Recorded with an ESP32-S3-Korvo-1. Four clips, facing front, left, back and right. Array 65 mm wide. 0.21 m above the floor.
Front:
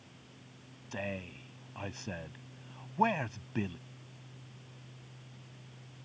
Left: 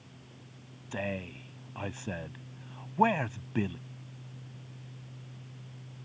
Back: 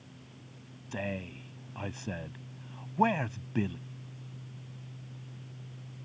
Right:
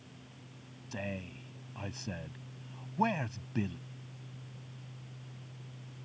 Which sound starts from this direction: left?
A man speaking, at 0.9 s.